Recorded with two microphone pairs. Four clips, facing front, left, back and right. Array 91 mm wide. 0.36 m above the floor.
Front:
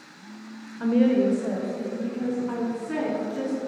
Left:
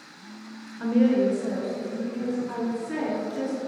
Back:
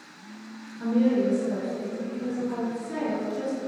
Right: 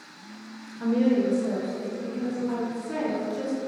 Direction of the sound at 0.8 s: 20° left.